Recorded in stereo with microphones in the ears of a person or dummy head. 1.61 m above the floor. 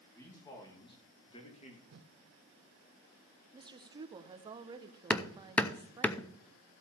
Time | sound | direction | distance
0.1 | a man speaking | 15° left (ahead or behind) | 3.5 m
1.9 | a whoosh | 60° right (ahead or behind) | 1.0 m
3.5 | a woman speaking | 25° right (ahead or behind) | 0.9 m
5.1 | hammering | 10° left (ahead or behind) | 0.6 m